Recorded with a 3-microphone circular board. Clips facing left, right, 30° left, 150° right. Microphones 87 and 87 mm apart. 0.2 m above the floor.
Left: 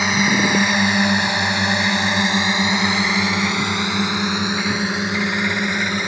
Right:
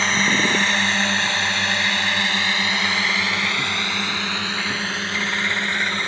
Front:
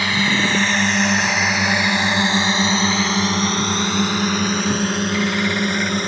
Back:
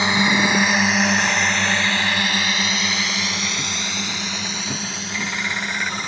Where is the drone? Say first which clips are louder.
Left 2 dB, back 1 dB; 160° left; by 6.1 s 15° left.